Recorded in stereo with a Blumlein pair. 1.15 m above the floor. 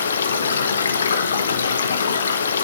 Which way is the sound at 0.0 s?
70° left.